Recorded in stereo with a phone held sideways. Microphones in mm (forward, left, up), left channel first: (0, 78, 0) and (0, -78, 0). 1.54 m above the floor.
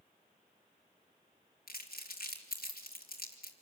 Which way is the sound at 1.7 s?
70° left (ahead or behind).